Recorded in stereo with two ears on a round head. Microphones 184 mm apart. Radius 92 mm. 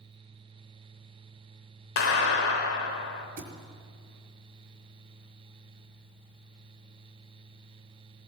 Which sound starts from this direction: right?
A thud, at 3.4 s.